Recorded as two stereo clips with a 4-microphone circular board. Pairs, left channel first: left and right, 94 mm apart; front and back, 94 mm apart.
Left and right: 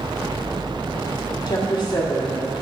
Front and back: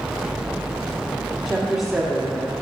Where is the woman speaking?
90° left, 1.7 m.